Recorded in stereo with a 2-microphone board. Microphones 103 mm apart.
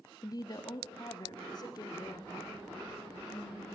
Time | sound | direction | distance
0.2 | a woman speaking | 35° left (ahead or behind) | 0.9 m